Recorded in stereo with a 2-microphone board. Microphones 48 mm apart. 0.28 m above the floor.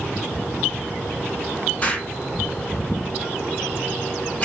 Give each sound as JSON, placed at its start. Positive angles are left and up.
{"t": 1.8, "sound": "an explosion", "side_deg": 35, "distance_m": 0.7}